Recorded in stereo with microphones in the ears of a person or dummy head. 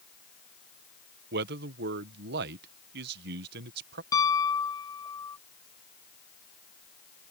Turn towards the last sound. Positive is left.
turn(degrees=20)  # may be behind; listen again after turning